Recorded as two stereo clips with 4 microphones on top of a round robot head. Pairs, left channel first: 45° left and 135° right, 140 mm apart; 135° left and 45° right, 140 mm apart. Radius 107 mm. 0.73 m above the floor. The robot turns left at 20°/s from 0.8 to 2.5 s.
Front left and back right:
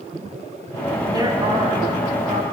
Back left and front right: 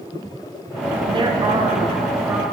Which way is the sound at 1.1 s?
80° right.